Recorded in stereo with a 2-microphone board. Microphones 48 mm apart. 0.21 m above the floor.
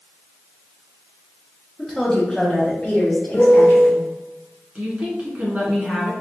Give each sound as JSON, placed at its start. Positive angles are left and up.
{"t": 1.8, "sound": "a woman speaking", "side_deg": -5, "distance_m": 1.3}
{"t": 3.3, "sound": "a piano", "side_deg": 45, "distance_m": 1.0}
{"t": 4.8, "sound": "a woman speaking", "side_deg": -30, "distance_m": 1.8}